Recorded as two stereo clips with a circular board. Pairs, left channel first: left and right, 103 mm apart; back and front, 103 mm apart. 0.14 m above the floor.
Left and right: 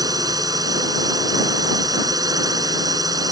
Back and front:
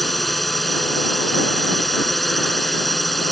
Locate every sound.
0.0 s a drone: 95° right